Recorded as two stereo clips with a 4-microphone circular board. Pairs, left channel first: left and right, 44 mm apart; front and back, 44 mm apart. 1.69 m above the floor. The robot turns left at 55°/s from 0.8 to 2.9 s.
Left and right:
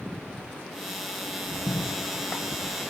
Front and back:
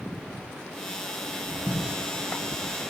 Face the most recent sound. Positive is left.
turn(degrees=30)